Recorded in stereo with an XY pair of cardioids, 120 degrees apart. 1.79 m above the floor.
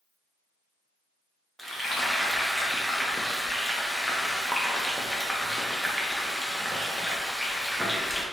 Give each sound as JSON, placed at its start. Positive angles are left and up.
{"t": 1.6, "sound": "frying", "azimuth_deg": 0, "distance_m": 0.6}